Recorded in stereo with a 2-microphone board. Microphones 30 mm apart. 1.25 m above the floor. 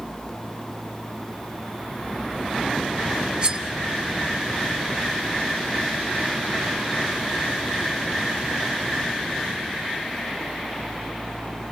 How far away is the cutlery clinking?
About 1.7 m.